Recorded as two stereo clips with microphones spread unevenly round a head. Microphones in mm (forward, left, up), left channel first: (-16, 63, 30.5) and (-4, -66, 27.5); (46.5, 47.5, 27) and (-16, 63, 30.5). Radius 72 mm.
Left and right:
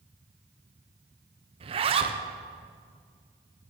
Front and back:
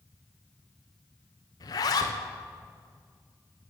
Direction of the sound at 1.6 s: 40° right.